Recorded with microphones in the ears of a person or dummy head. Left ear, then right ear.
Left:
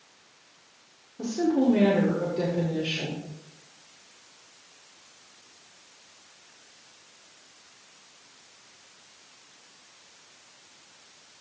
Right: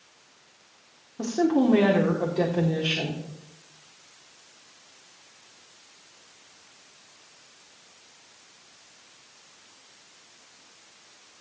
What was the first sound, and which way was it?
A woman speaking, 45° right (ahead or behind).